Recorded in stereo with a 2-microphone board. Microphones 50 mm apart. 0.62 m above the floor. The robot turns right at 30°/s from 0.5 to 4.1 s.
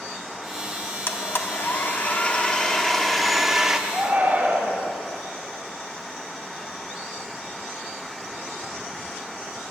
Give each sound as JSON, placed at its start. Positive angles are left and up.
{"t": 1.1, "sound": "a blender", "azimuth_deg": 115, "distance_m": 0.9}
{"t": 3.9, "sound": "a shout", "side_deg": -25, "distance_m": 3.5}